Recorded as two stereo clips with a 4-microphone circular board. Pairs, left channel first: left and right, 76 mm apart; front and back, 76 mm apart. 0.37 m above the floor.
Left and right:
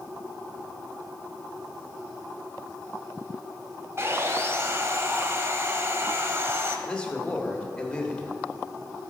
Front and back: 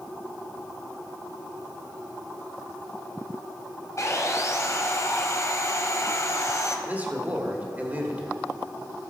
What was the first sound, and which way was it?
Sawing, 35° right.